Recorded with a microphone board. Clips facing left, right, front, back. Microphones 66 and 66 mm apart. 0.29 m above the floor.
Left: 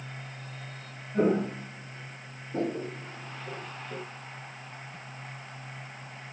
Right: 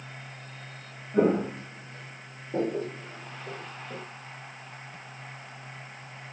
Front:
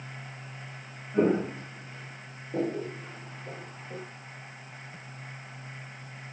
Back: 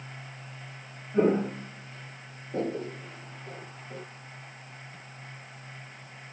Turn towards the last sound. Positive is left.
turn(degrees=-75)